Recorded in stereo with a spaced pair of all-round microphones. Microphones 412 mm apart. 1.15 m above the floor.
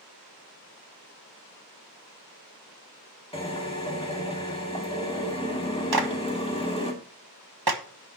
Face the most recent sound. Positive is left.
turn(degrees=-60)  # may be behind; listen again after turning